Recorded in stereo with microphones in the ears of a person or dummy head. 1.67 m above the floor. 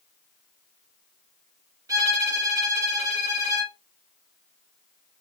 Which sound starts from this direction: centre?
A violin, at 1.9 s.